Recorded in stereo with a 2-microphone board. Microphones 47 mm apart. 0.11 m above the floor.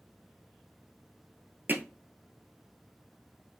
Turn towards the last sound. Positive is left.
turn(degrees=-45)  # may be behind; listen again after turning